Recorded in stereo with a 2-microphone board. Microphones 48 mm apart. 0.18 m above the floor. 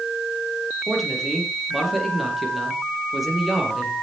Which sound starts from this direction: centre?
A man speaking, at 0.9 s.